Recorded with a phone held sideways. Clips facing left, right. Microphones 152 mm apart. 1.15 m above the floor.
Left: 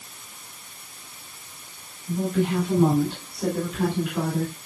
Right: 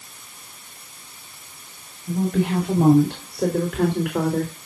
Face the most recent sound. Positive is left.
turn(degrees=-90)